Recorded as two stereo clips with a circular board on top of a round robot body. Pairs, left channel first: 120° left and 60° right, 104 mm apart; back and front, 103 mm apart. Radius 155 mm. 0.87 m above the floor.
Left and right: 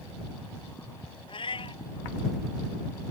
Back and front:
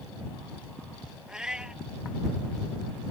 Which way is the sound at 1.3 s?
80° left.